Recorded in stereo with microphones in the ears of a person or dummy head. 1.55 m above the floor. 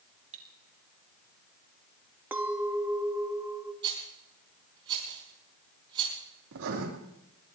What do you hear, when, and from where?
0.3 s cutlery clinking: 40° right (ahead or behind), 2 m
2.3 s a clink: 15° right (ahead or behind), 1.3 m
3.8 s a rattle: 25° right (ahead or behind), 5 m
6.5 s writing: 70° right (ahead or behind), 3.5 m